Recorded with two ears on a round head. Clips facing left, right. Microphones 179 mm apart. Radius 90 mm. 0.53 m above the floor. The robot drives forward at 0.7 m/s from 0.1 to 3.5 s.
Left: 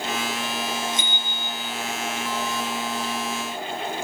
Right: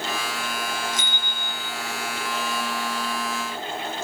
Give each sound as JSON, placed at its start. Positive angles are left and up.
{"t": 0.9, "sound": "a bicycle bell", "side_deg": 55, "distance_m": 8.5}